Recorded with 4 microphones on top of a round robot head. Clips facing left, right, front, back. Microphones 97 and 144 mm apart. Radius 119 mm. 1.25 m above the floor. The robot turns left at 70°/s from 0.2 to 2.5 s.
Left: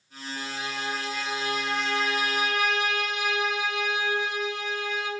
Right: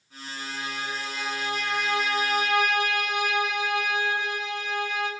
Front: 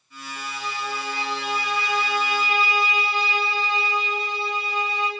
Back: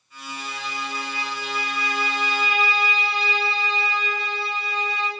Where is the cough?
I don't hear a cough.